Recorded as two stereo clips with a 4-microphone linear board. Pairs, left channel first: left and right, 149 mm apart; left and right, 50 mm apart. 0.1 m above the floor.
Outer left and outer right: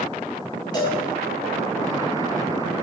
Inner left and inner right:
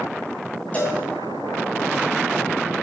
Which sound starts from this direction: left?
A cowbell, at 0.7 s.